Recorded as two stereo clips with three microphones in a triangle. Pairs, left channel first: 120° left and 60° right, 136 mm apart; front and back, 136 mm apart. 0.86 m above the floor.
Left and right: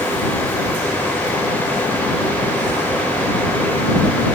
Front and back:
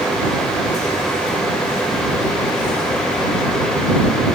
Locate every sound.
Only background noise.